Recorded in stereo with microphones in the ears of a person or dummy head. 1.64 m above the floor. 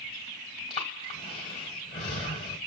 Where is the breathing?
15° left (ahead or behind), 1.5 m.